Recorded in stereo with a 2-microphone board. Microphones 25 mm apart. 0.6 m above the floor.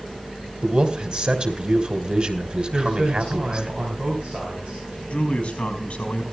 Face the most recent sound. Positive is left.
turn(degrees=45)  # may be behind; listen again after turning